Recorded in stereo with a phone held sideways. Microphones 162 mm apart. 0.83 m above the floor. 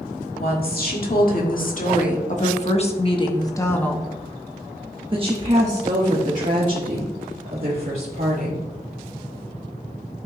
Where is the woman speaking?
70° left (ahead or behind), 2 m; by 8.6 s 70° right (ahead or behind), 2.5 m.